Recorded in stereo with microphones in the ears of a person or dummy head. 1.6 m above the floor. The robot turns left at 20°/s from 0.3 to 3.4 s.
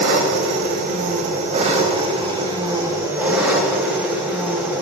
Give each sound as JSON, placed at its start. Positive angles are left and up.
{"t": 0.0, "sound": "an engine running", "azimuth_deg": -110, "distance_m": 1.1}